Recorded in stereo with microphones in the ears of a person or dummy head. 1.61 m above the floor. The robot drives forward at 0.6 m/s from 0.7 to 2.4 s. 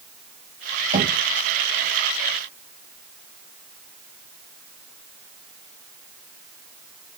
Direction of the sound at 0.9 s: 40° right (ahead or behind).